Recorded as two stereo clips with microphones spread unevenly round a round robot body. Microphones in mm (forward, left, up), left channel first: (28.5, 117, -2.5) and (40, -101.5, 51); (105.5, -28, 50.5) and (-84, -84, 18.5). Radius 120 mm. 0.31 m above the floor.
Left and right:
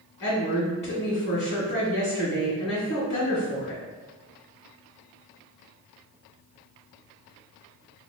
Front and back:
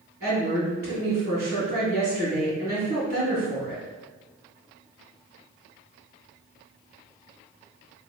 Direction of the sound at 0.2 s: 150° left.